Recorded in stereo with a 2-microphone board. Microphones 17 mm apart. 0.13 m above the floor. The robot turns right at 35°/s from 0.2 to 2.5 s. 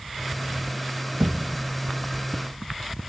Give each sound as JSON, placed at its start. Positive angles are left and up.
{"t": 1.2, "sound": "a thud", "side_deg": -85, "distance_m": 2.5}